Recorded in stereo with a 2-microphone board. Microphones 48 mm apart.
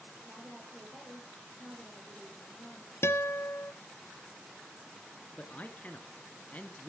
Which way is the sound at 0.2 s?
5° right (ahead or behind).